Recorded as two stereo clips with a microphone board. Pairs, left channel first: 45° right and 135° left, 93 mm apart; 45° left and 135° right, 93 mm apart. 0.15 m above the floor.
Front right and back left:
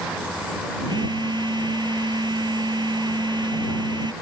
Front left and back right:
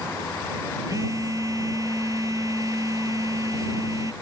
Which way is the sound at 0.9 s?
175° left.